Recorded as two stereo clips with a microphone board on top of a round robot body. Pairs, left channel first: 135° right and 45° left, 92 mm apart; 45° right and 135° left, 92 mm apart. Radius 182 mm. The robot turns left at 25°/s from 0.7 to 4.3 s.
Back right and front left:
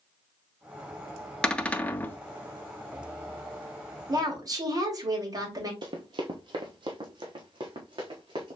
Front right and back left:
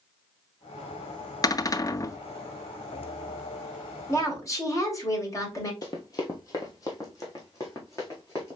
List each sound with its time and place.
1.4 s a cupboard door: 60° right, 0.7 m; by 2.2 s 75° right, 0.7 m
4.1 s a woman speaking: 10° left, 2 m; by 5.7 s 5° left, 2 m
5.8 s running footsteps: 5° left, 0.5 m; by 8.6 s 10° left, 2 m